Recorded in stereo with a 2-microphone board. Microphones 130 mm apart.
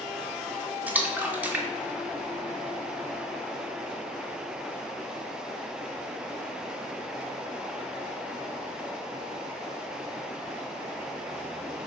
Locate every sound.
0.9 s a splash: 15° right (ahead or behind), 0.9 m